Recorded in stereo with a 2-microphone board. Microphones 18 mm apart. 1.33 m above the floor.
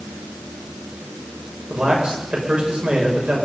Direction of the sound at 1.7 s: 60° right (ahead or behind).